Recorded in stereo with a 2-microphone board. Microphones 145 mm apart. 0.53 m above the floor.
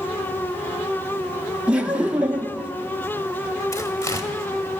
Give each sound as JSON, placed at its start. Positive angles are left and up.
{"t": 1.7, "sound": "laughter", "side_deg": -10, "distance_m": 0.6}
{"t": 3.7, "sound": "tearing paper", "side_deg": 20, "distance_m": 1.3}